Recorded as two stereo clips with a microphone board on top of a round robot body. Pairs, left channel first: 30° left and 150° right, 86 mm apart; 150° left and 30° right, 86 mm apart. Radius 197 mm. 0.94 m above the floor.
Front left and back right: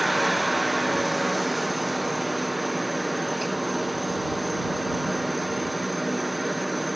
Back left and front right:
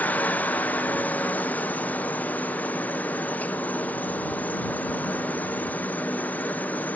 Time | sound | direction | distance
0.0 | a helicopter | 125° left | ?